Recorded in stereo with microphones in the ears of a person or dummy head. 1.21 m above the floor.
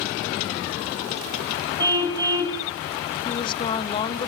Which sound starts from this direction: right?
A car horn, at 1.8 s.